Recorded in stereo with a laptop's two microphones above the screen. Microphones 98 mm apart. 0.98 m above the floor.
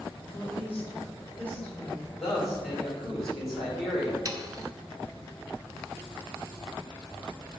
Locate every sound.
0.3 s a woman speaking: 20° left (ahead or behind), 3 m; by 2.1 s 15° left (ahead or behind), 3.5 m
2.2 s a man speaking: centre (ahead or behind), 4 m
4.2 s sawing: 40° right (ahead or behind), 1.0 m